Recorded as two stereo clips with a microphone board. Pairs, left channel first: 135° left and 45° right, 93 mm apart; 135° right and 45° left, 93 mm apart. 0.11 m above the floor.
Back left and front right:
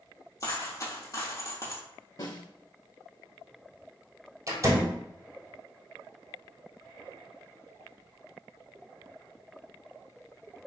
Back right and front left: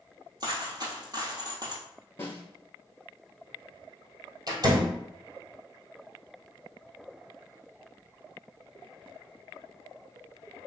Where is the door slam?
5° left, 1.8 m.